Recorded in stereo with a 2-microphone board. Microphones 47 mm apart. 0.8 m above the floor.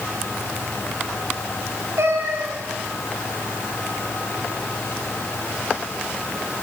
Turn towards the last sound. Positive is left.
turn(degrees=-85)